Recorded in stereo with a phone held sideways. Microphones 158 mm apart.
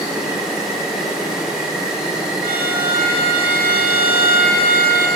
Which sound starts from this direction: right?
A violin, at 2.4 s.